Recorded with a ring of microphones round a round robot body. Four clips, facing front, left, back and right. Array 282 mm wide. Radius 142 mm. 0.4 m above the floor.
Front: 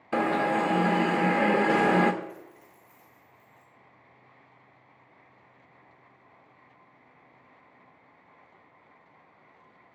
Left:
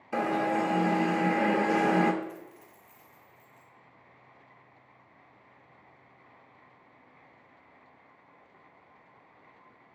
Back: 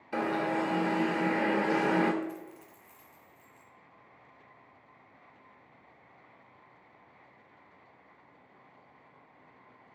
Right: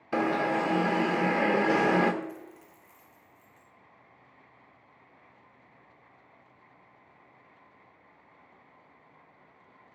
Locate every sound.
0.1 s an alarm: 30° right, 0.5 m
2.2 s a dropped coin: 160° right, 1.7 m